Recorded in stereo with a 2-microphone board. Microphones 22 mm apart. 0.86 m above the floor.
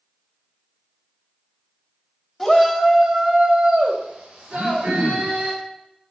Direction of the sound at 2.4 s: 5° left (ahead or behind).